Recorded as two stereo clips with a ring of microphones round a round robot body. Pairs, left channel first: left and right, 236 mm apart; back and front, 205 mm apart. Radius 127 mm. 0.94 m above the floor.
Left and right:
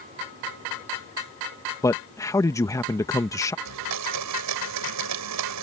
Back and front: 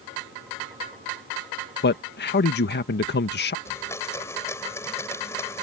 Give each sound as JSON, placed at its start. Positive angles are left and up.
{"t": 1.8, "sound": "a man speaking", "azimuth_deg": 165}
{"t": 3.6, "sound": "a blender", "azimuth_deg": -100}